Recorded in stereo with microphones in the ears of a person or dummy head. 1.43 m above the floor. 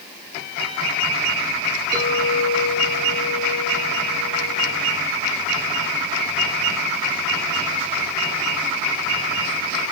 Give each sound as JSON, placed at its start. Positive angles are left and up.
{"t": 1.9, "sound": "a clink", "side_deg": 25, "distance_m": 7.5}